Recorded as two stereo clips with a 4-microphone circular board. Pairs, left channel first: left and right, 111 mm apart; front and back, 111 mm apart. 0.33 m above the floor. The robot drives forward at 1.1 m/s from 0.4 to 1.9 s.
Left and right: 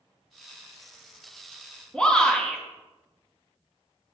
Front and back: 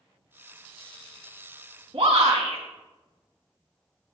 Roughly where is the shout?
Behind.